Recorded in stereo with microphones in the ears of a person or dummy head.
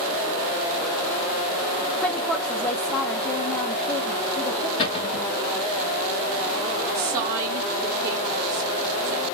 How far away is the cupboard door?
About 1.8 m.